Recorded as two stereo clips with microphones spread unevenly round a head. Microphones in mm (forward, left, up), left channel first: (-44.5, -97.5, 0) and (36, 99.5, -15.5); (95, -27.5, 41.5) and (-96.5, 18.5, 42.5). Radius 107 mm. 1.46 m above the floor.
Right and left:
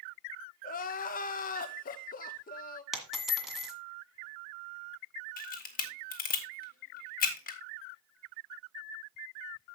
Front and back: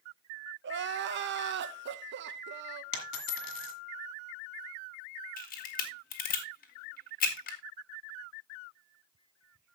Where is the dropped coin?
25° right, 1.8 m.